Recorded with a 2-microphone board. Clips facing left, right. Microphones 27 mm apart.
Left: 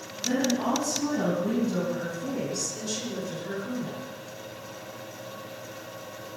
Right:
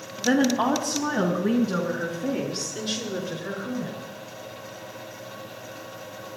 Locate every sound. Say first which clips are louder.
0.2 s a woman speaking: right 5 dB; 55° right (ahead or behind), 2.5 m; by 4.0 s 35° right (ahead or behind), 6 m